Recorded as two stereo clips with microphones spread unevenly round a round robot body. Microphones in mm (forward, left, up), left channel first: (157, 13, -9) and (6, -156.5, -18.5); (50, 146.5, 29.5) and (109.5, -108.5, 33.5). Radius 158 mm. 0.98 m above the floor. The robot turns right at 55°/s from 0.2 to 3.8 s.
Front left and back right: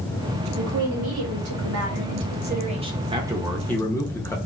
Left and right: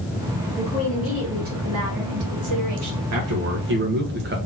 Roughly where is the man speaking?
Ahead right.